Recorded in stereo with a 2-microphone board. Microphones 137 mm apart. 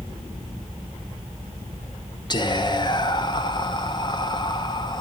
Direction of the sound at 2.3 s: 35° left (ahead or behind).